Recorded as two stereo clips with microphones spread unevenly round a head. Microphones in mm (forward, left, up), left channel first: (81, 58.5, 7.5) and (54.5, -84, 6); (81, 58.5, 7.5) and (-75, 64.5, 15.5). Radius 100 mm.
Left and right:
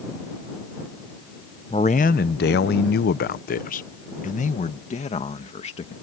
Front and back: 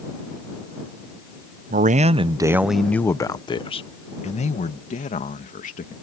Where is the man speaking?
145° left; by 5.9 s 35° left.